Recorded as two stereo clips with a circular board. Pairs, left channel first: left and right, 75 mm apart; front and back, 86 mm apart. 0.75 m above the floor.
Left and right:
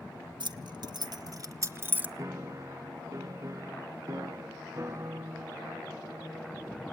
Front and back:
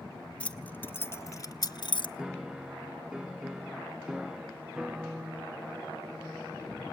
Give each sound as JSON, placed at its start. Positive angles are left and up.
{"t": 0.4, "sound": "keys jangling", "azimuth_deg": -75, "distance_m": 1.5}
{"t": 2.2, "sound": "a piano", "azimuth_deg": -100, "distance_m": 0.9}